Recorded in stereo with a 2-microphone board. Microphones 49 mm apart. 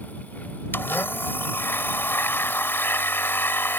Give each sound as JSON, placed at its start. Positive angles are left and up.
{"t": 0.7, "sound": "a blender", "side_deg": 50}